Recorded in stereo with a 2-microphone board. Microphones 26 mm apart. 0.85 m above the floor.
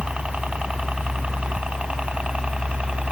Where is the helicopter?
50° right (ahead or behind).